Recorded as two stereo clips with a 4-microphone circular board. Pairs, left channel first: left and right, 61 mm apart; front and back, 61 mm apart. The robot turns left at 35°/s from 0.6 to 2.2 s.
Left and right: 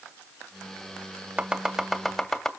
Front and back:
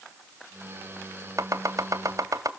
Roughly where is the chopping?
Behind right.